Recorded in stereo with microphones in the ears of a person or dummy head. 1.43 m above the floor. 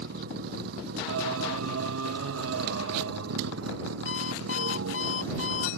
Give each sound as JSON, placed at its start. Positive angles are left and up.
{"t": 0.0, "sound": "a vehicle", "side_deg": -60}
{"t": 1.1, "sound": "singing", "side_deg": -85}
{"t": 4.0, "sound": "an alarm clock", "side_deg": 75}